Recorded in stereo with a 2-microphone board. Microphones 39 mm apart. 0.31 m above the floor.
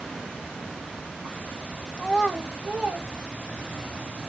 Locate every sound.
2.0 s a child speaking: 5° left (ahead or behind), 0.8 m; by 3.9 s 40° right (ahead or behind), 1.5 m